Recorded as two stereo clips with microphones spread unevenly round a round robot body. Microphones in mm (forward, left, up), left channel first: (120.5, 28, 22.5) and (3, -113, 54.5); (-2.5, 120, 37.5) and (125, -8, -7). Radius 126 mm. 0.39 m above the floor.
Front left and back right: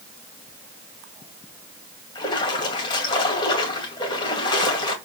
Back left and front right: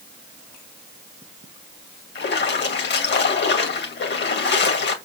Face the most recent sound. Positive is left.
turn(degrees=110)